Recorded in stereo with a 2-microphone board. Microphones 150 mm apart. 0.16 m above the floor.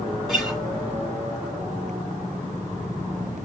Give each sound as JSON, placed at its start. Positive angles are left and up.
{"t": 0.3, "sound": "a guitar", "side_deg": 0, "distance_m": 1.7}